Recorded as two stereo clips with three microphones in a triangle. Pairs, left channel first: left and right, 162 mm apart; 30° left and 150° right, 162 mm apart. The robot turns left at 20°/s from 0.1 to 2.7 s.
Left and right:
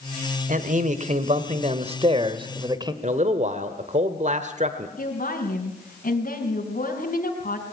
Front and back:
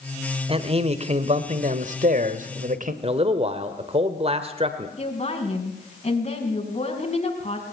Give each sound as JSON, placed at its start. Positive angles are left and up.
{"t": 0.5, "sound": "a man speaking", "azimuth_deg": -105, "distance_m": 1.6}
{"t": 3.0, "sound": "a man speaking", "azimuth_deg": -110, "distance_m": 1.4}
{"t": 5.0, "sound": "a woman speaking", "azimuth_deg": 70, "distance_m": 4.0}